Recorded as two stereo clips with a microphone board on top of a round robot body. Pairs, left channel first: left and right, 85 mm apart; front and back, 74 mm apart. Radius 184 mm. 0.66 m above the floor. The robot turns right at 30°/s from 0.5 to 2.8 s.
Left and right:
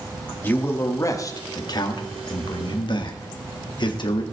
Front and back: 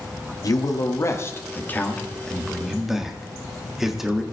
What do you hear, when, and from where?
0.4 s a man speaking: 25° left, 2 m; by 4.2 s 95° left, 2 m